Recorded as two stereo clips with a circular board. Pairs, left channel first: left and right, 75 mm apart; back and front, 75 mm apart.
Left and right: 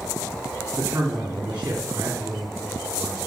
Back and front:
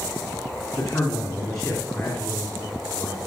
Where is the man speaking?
155° right, 1.9 m.